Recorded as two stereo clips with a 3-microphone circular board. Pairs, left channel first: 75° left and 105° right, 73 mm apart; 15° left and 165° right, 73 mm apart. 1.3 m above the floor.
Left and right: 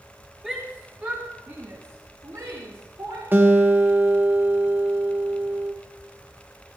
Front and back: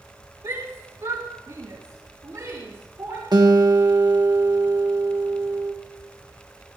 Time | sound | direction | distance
0.4 | a shout | 175° left | 2 m
3.3 | a guitar | 165° right | 1.6 m